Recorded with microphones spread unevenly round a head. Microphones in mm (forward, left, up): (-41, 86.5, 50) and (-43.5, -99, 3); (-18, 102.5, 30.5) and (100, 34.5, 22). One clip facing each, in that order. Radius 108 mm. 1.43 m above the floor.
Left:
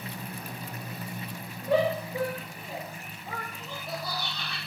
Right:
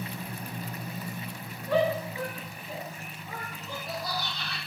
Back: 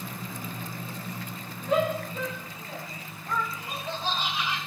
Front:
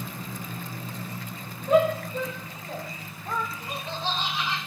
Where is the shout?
15° left, 3 m; by 3.5 s 45° left, 0.6 m.